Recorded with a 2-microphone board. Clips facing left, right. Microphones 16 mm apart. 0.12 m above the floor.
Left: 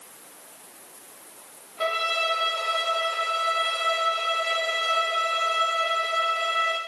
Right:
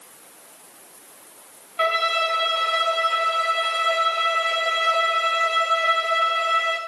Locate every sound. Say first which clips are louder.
1.8 s a violin: right 4 dB; 65° right (ahead or behind), 6 m